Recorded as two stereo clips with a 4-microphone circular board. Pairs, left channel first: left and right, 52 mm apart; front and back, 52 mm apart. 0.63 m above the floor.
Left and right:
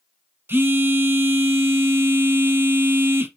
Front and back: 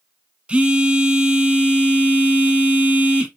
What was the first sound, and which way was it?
A phone buzzing, 120° right.